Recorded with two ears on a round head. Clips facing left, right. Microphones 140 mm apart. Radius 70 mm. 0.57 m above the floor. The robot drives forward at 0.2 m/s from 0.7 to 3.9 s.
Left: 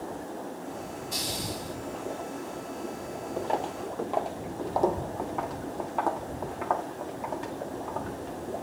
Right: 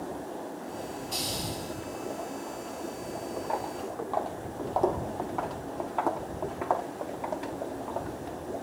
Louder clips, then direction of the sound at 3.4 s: Left 4 dB; 30° left (ahead or behind).